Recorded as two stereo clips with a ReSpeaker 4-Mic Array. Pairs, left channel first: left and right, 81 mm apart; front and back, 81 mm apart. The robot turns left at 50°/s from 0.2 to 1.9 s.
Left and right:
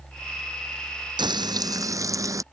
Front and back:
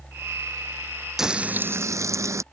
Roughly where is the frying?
Right.